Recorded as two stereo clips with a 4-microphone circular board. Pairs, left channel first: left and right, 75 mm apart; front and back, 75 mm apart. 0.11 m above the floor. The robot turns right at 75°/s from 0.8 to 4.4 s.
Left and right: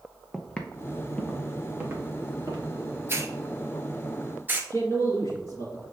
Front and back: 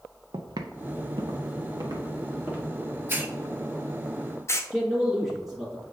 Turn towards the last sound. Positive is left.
turn(degrees=90)